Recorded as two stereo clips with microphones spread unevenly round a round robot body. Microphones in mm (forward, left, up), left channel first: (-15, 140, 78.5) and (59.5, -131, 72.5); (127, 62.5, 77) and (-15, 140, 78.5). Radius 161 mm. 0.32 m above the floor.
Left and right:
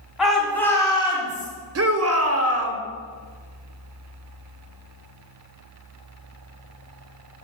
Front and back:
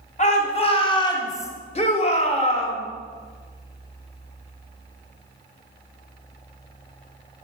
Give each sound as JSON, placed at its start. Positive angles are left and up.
{"t": 0.2, "sound": "a shout", "azimuth_deg": 15, "distance_m": 2.5}
{"t": 1.8, "sound": "a shout", "azimuth_deg": -70, "distance_m": 1.6}